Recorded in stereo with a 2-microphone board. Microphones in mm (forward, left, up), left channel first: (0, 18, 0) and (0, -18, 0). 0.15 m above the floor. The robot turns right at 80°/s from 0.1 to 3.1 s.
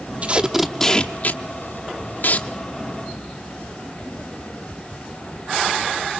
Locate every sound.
0.2 s tape being pulled: 40° right (ahead or behind), 0.8 m; by 2.5 s 40° left (ahead or behind), 0.8 m